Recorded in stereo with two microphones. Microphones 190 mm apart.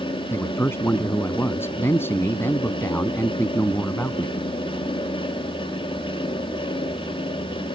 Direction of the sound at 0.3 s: 10° left (ahead or behind).